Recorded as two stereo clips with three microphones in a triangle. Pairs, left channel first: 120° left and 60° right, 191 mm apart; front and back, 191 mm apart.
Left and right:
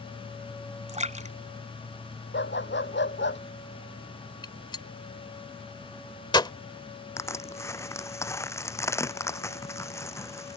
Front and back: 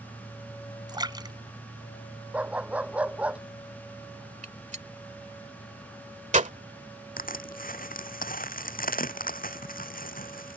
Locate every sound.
0.9 s a splash: 110° right
2.3 s a dog barking: 95° left
4.4 s a gunshot: 170° left
7.2 s crushing: 45° left